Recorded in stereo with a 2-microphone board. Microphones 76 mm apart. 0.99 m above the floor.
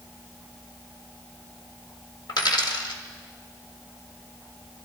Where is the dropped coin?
75° left (ahead or behind), 1.5 m.